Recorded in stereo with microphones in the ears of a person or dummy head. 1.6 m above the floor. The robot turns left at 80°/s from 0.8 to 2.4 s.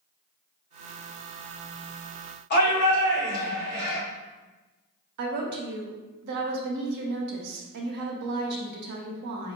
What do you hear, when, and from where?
2.5 s a shout: 55° left (ahead or behind), 1.1 m
5.2 s a woman speaking: 65° right (ahead or behind), 0.7 m